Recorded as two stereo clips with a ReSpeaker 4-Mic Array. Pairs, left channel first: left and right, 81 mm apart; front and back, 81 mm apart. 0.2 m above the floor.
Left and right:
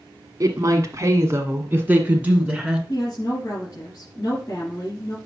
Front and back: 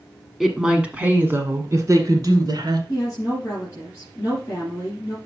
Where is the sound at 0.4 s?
95° right, 1.4 m; by 2.8 s 165° right, 1.8 m.